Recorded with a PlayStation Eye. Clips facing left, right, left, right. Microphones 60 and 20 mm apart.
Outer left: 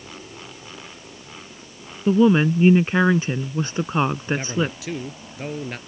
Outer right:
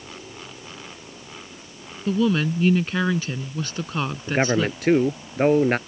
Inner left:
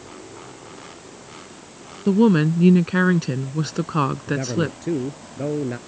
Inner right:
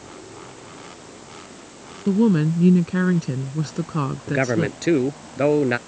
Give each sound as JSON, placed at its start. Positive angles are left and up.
{"t": 2.1, "sound": "a woman speaking", "side_deg": 25}
{"t": 4.3, "sound": "a man speaking", "side_deg": -55}